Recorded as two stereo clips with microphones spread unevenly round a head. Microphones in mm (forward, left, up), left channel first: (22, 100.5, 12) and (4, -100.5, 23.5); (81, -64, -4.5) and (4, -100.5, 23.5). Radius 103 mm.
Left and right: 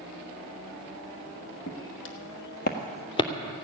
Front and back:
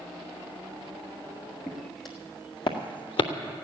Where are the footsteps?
100° left, 2 m; by 3.3 s 20° left, 1.3 m.